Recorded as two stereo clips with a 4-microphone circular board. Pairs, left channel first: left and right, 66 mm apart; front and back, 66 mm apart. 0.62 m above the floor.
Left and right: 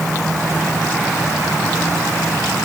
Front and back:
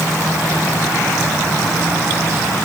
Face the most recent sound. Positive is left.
No sound to turn to.